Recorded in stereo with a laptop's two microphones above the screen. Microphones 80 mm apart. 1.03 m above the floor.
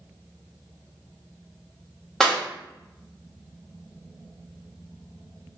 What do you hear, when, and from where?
2.2 s a clap: 5° left (ahead or behind), 1.3 m